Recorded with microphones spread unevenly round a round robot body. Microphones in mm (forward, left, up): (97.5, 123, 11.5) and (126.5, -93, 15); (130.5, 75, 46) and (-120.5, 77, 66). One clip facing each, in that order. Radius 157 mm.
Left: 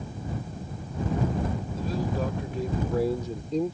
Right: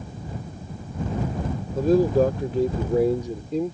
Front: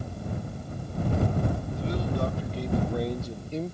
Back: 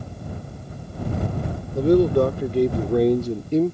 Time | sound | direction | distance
1.8 | a man speaking | 135° right | ?